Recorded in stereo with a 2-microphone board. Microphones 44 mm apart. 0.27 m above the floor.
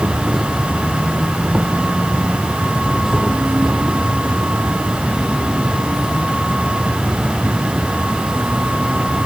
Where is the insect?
15° right (ahead or behind).